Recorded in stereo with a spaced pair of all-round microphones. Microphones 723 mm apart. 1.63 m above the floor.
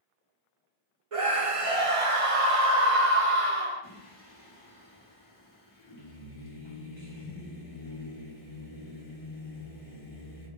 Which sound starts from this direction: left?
Singing, at 3.8 s.